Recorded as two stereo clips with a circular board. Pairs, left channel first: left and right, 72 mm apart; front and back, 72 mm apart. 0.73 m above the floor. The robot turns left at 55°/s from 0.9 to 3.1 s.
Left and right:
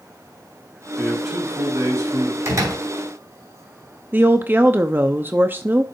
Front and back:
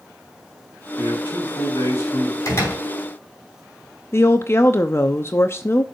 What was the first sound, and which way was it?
A man speaking, 10° left.